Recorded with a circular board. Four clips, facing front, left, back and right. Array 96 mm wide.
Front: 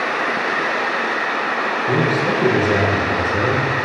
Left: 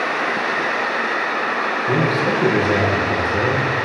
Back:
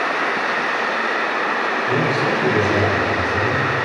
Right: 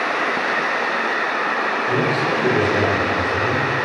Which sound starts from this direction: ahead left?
A man speaking, at 1.9 s.